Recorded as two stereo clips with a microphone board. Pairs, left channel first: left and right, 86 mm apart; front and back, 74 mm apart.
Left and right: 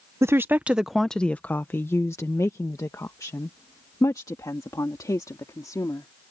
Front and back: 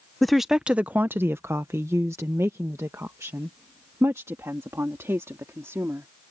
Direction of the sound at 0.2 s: 85° right.